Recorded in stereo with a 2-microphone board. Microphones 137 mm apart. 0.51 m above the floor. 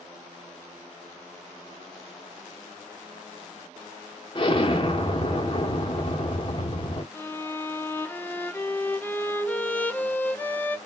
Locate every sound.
4.3 s an explosion: 35° left (ahead or behind), 0.9 m
7.1 s a violin: 15° left (ahead or behind), 0.6 m